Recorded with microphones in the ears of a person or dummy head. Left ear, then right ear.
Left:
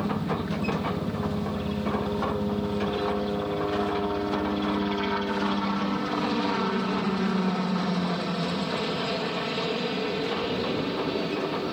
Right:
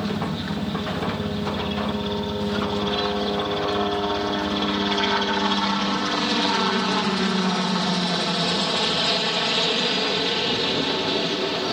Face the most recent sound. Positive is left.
turn(degrees=-40)  # may be behind; listen again after turning